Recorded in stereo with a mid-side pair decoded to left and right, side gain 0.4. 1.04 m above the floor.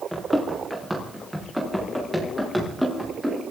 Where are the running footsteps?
Straight ahead, 5 m; by 3.4 s 5° right, 7.5 m.